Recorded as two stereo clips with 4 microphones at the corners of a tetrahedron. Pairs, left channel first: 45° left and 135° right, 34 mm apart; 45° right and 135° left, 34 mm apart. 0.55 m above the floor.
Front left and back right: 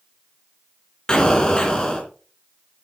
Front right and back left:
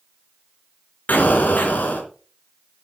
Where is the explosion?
20° right, 3 m.